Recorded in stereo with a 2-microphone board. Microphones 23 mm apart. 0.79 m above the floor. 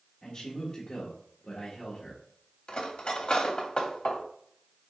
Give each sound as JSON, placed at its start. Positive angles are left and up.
{"t": 0.2, "sound": "a man speaking", "side_deg": 40, "distance_m": 1.3}
{"t": 2.7, "sound": "cutlery clinking", "side_deg": 45, "distance_m": 0.9}